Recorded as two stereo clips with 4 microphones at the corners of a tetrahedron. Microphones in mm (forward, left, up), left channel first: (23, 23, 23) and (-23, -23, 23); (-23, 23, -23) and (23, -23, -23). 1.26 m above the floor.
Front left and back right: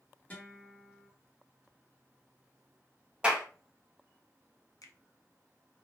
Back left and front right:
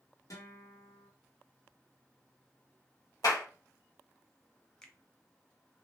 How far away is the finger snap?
About 0.5 m.